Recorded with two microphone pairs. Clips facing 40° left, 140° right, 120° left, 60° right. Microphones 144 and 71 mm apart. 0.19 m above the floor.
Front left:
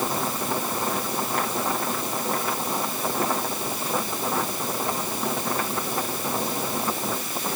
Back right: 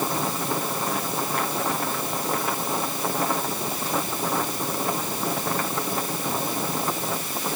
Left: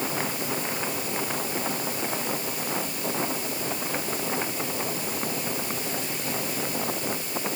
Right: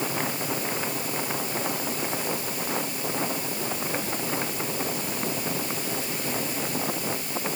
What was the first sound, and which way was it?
Only background noise.